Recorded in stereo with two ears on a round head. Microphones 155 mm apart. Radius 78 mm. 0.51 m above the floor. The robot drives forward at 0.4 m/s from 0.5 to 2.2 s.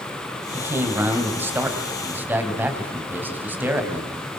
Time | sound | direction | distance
0.5 | a man speaking | 15° right (ahead or behind) | 3.5 m